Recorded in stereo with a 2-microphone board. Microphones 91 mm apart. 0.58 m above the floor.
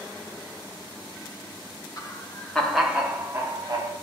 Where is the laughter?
35° left (ahead or behind), 0.9 m; by 3.9 s 45° right (ahead or behind), 1.2 m.